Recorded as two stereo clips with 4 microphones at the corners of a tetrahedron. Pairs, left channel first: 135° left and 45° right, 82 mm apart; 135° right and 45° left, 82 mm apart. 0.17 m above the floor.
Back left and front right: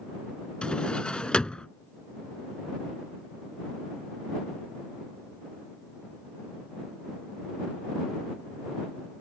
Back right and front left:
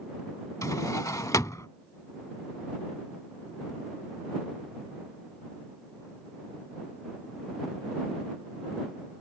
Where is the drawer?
150° right.